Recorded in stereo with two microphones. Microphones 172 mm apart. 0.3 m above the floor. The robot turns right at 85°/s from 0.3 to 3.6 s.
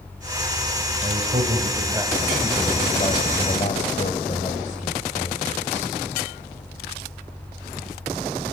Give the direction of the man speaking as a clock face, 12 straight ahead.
4 o'clock.